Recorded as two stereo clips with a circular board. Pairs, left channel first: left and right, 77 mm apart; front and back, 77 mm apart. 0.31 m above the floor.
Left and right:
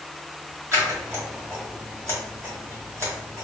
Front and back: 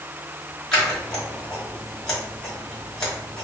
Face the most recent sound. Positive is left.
turn(degrees=-75)